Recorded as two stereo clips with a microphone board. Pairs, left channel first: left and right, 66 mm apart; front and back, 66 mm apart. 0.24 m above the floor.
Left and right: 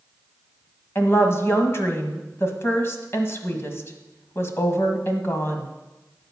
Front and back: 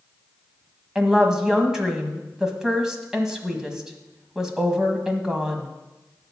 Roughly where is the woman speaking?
Left.